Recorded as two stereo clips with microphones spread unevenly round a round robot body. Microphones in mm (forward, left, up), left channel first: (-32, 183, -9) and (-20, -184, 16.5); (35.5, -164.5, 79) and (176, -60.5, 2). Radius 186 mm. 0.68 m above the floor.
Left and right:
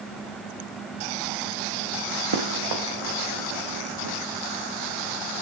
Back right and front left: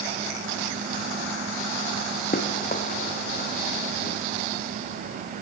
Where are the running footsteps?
110° right, 4.5 m; by 4.2 s 125° right, 4 m.